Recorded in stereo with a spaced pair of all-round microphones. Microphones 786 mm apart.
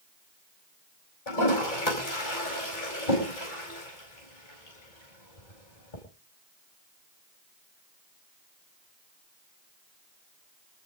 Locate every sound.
1.3 s a toilet flushing: 75° left (ahead or behind), 5 m